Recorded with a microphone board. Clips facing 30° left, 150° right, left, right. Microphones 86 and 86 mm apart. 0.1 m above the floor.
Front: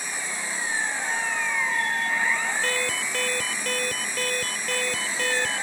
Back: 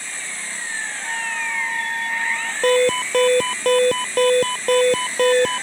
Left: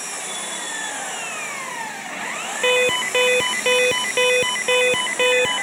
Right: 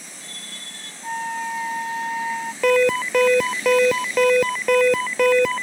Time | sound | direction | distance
0.0 | an engine running | 105° left | ?
1.0 | a flute | 75° right | ?
2.6 | an alarm | 165° right | ?